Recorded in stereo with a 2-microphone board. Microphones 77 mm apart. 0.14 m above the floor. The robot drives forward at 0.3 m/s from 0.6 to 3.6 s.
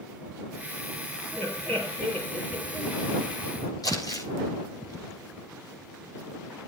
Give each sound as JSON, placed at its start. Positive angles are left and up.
{"t": 1.3, "sound": "laughter", "side_deg": 20, "distance_m": 3.5}
{"t": 3.8, "sound": "crumpling", "side_deg": 55, "distance_m": 6.0}